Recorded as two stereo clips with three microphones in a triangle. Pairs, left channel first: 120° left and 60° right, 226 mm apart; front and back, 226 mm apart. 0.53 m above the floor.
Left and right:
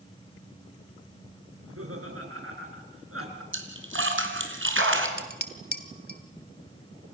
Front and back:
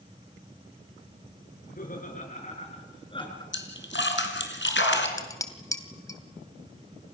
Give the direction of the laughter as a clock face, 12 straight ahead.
2 o'clock.